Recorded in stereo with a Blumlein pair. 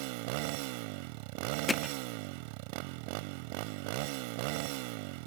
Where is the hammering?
10° left.